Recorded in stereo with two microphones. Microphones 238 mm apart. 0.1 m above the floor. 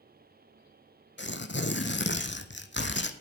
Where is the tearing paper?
50° left (ahead or behind), 1.1 m.